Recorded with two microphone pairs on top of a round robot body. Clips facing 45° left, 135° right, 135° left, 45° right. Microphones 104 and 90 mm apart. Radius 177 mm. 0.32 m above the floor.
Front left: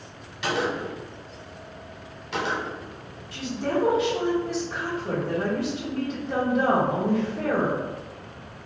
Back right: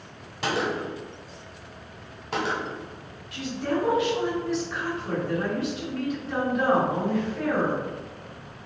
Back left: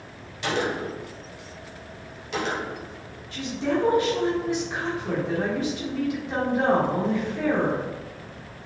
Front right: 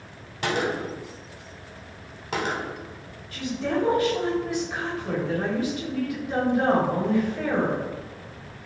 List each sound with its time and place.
0.4 s a gunshot: 85° right, 0.6 m
3.3 s a woman speaking: 80° left, 1.5 m